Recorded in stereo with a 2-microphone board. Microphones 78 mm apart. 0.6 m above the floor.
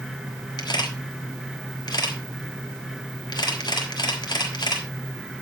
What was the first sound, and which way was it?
A camera shutter, 65° left (ahead or behind).